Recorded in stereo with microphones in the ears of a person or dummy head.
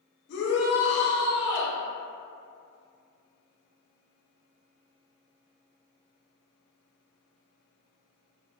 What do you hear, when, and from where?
0.3 s a shout: 55° left (ahead or behind), 1.0 m